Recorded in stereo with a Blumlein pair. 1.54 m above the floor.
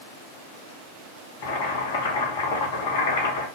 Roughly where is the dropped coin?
I don't hear a dropped coin.